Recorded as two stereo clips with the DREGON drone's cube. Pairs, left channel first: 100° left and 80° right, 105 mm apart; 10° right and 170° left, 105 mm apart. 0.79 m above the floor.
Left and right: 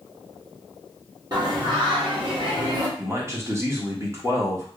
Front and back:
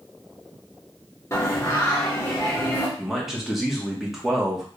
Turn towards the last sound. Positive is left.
turn(degrees=-105)